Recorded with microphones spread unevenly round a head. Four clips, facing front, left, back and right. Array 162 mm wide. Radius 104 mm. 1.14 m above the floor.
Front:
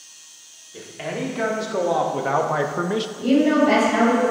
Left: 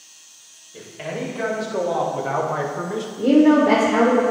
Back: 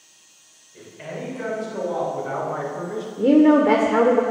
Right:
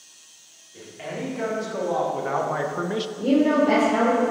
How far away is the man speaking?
About 2.5 m.